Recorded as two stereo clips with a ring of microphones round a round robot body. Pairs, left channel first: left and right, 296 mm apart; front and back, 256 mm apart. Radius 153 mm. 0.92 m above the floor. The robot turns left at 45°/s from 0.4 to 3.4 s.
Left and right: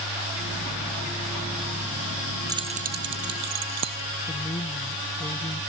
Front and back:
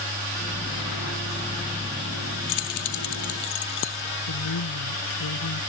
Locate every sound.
2.5 s keys jangling: 10° right; by 4.0 s 50° right
4.3 s a woman speaking: 15° left